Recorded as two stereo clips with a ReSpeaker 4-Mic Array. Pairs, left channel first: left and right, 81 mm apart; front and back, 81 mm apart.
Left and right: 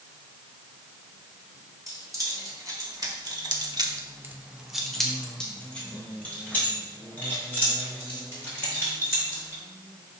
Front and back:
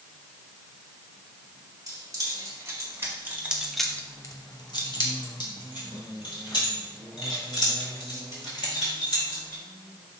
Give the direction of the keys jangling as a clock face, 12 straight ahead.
5 o'clock.